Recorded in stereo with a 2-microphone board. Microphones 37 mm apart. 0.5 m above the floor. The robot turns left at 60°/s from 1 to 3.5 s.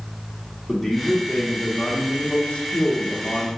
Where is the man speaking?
Straight behind, 0.7 m; by 3.5 s 30° left, 0.7 m.